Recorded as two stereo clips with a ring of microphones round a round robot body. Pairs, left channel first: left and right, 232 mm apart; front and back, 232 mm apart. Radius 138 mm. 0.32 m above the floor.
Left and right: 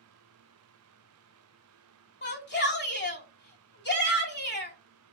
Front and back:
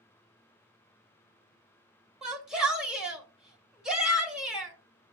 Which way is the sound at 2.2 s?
95° left.